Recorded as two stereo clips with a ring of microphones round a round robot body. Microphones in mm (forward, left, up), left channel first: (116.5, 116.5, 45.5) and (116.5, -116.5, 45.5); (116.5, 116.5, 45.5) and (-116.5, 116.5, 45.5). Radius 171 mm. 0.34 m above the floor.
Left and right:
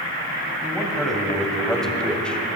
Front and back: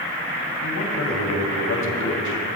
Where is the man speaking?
Straight ahead, 3 m; by 2.6 s 5° left, 2 m.